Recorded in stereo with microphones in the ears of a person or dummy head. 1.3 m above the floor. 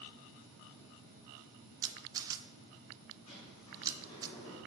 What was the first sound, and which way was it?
A camera shutter, 20° right (ahead or behind).